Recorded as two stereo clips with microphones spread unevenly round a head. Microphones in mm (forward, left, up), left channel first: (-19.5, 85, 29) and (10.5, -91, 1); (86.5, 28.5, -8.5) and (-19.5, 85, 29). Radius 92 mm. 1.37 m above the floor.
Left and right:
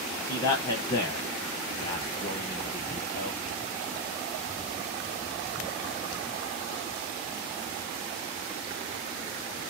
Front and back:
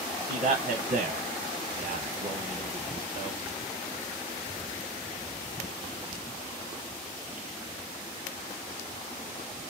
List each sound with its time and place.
0.3 s a man speaking: 155° left, 0.8 m